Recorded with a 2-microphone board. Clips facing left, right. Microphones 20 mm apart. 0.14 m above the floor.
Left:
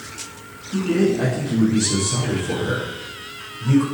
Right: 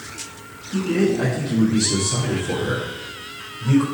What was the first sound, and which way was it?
A man speaking, 20° left (ahead or behind).